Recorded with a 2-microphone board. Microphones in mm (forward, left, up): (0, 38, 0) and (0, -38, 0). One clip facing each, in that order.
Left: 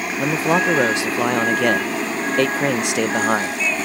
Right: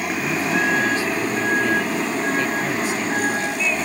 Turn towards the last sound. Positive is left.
turn(degrees=80)